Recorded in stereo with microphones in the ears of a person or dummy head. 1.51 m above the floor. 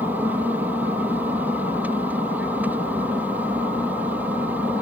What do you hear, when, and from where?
0.0 s an aircraft: 10° right (ahead or behind)